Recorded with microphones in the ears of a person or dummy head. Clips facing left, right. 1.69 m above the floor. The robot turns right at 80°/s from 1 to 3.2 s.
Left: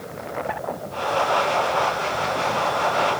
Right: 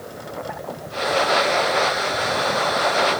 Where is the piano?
I don't hear a piano.